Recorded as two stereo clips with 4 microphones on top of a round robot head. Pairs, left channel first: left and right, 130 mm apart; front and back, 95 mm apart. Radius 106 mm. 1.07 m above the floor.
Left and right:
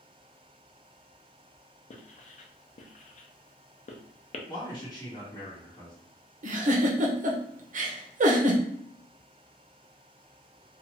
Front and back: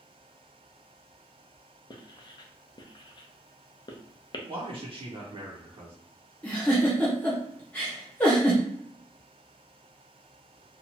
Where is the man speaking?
155° left, 0.8 m.